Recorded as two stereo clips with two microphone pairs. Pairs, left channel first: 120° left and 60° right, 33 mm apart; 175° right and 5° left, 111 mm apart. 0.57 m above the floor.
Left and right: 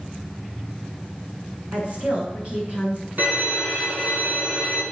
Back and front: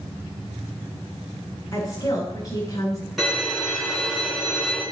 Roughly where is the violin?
Right.